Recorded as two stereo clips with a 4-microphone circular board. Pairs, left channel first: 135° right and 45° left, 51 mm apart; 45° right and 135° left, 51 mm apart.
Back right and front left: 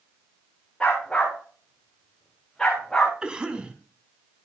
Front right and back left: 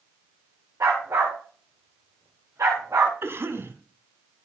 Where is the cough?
115° left, 2.5 m.